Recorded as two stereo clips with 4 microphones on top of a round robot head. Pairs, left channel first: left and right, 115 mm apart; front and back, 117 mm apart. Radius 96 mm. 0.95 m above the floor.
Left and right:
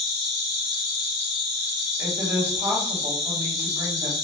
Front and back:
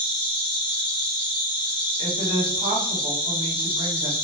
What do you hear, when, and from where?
0.0 s an insect: 25° left, 1.0 m
2.0 s a woman speaking: 160° right, 2.0 m